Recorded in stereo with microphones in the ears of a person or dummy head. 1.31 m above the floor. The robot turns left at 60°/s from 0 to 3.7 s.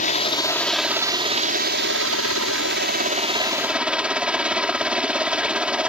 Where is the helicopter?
45° left; by 5.9 s 175° right.